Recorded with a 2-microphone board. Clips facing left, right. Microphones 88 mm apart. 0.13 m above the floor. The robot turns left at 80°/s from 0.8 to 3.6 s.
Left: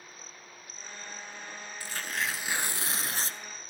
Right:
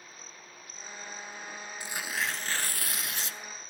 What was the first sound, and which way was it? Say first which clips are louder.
Tearing paper: even; 145° right.